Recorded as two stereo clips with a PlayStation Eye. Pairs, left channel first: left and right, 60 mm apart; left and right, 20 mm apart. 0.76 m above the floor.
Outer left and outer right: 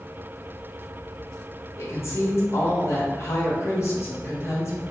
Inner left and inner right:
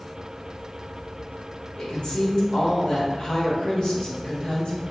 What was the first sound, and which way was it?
A woman speaking, 50° left (ahead or behind).